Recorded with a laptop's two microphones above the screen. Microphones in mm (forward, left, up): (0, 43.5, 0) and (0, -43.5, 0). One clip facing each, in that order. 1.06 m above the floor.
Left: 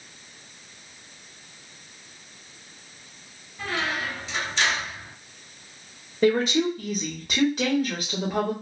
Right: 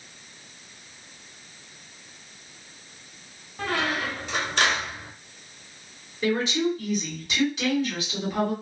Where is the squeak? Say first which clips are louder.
Right 2 dB; 50° right (ahead or behind), 0.6 m.